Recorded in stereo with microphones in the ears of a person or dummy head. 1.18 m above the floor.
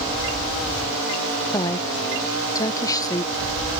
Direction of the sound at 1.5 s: 20° left (ahead or behind).